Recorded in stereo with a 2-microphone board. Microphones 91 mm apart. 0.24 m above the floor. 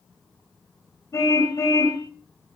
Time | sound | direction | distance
1.1 | a car horn | 35° left (ahead or behind) | 5.5 m